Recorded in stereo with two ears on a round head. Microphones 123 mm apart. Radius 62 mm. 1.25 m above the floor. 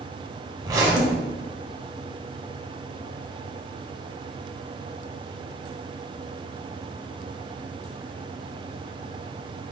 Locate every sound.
0.6 s a zipper: 25° right (ahead or behind), 0.8 m